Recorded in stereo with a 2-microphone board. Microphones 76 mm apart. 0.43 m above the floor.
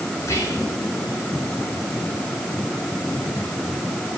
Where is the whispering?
40° left (ahead or behind), 3 m.